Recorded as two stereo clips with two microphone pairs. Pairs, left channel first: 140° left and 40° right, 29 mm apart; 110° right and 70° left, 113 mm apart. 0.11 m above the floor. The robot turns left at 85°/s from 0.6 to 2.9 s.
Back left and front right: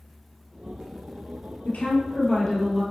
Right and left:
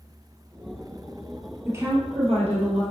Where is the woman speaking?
140° left, 2.5 m; by 2.8 s 45° left, 2.5 m.